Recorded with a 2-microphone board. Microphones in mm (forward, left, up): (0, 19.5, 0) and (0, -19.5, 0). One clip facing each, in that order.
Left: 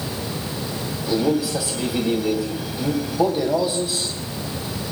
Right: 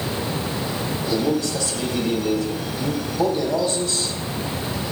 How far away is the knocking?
I don't hear knocking.